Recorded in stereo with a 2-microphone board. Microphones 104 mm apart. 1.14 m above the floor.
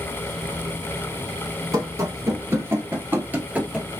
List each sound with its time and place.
1.7 s running footsteps: 35° right (ahead or behind), 1.3 m; by 3.9 s 10° right (ahead or behind), 1.3 m